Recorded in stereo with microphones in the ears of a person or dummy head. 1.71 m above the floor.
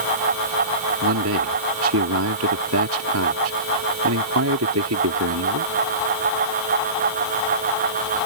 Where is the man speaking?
75° right (ahead or behind).